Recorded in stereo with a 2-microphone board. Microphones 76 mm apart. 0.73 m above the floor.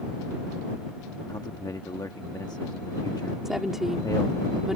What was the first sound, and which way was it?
A man speaking, 55° left (ahead or behind).